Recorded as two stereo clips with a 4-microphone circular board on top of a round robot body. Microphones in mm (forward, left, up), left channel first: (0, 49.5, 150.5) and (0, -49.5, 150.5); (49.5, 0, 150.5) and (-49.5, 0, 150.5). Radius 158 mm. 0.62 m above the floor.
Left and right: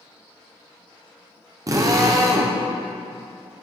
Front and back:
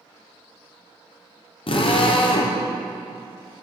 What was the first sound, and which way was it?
A drill, 35° right.